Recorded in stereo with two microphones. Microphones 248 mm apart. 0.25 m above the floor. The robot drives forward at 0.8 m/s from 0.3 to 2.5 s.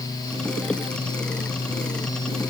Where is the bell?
I don't hear a bell.